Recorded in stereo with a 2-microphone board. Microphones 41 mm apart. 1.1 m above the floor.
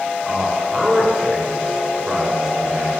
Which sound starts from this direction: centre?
A man speaking, at 0.2 s.